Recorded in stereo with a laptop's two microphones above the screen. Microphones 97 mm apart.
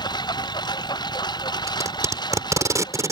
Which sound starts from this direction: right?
Tape being pulled, at 1.7 s.